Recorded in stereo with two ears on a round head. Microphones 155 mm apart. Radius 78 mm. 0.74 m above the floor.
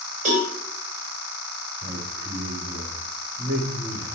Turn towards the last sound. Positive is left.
turn(degrees=-65)  # may be behind; listen again after turning